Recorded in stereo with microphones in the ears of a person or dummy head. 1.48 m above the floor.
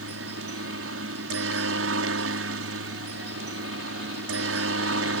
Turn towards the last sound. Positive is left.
turn(degrees=-70)  # may be behind; listen again after turning